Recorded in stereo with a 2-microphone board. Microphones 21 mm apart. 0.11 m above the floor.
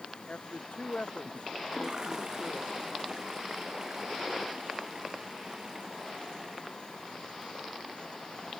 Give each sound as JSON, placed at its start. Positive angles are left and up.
{"t": 0.3, "sound": "a woman speaking", "side_deg": 75}
{"t": 1.6, "sound": "a toilet flushing", "side_deg": -30}